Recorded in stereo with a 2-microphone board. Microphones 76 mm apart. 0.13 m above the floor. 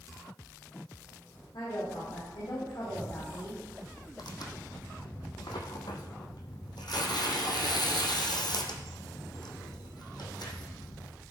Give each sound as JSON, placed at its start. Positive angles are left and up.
{"t": 1.5, "sound": "a woman speaking", "side_deg": 70, "distance_m": 5.5}
{"t": 4.2, "sound": "tearing paper", "side_deg": 70, "distance_m": 1.4}